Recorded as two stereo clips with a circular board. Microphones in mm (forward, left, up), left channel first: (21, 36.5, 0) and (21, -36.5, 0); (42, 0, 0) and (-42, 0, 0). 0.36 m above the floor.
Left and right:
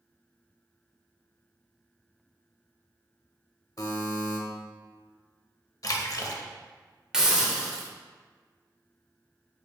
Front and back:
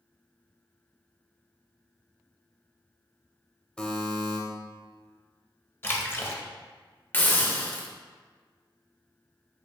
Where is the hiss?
20° right, 0.6 m.